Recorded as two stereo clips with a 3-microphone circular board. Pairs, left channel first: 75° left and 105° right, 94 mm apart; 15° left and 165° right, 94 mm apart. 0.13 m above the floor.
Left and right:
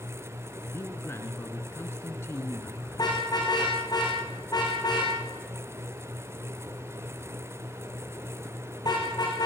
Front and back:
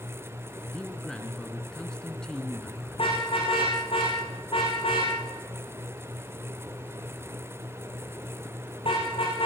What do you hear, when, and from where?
0.7 s a man speaking: 85° left, 1.5 m
2.9 s a car horn: 30° left, 6 m